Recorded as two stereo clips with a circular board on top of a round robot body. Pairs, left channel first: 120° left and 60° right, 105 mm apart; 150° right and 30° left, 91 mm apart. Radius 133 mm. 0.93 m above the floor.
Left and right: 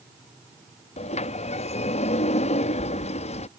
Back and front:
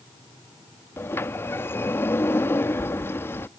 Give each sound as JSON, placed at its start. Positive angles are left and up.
{"t": 1.0, "sound": "a sliding door", "azimuth_deg": 140}